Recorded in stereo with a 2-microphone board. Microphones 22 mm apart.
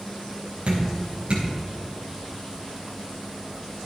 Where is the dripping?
55° right (ahead or behind), 4.5 m.